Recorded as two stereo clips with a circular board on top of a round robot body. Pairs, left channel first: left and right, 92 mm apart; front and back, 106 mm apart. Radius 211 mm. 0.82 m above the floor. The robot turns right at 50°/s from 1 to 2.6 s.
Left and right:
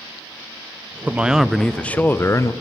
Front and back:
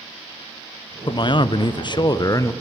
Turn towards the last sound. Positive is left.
turn(degrees=55)